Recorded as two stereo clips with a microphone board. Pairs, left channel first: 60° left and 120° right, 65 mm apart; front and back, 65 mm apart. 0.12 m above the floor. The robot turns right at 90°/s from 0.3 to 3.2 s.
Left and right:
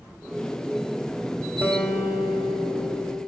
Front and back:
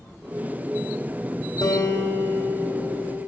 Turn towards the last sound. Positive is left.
turn(degrees=130)